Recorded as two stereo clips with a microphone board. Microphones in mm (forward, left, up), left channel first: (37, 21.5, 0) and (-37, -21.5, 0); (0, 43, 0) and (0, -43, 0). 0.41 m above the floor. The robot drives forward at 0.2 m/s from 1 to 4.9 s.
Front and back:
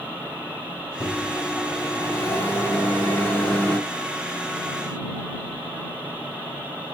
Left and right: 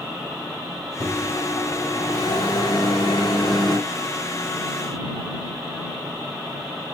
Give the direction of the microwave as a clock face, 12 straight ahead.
9 o'clock.